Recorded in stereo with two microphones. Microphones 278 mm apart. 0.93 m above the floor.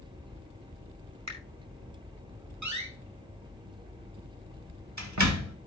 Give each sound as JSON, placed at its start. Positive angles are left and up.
{"t": 1.3, "sound": "a finger snap", "side_deg": -70, "distance_m": 4.5}
{"t": 2.6, "sound": "a door slam", "side_deg": -80, "distance_m": 1.8}